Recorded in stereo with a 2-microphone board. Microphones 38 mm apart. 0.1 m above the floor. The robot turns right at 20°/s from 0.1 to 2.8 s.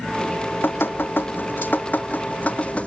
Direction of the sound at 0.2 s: 90° left.